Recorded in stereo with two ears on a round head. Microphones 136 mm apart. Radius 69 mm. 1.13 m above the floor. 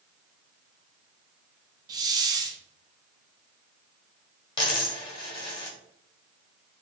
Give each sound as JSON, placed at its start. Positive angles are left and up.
{"t": 1.9, "sound": "a hiss", "side_deg": -25, "distance_m": 0.6}
{"t": 4.6, "sound": "a dropped coin", "side_deg": 35, "distance_m": 2.0}